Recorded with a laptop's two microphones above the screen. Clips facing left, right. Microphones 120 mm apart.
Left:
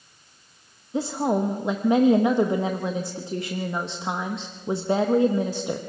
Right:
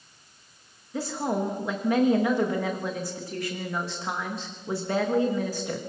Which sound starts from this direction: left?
A woman speaking, at 0.9 s.